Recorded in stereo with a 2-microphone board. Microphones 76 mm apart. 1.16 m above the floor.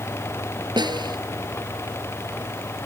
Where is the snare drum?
75° right (ahead or behind).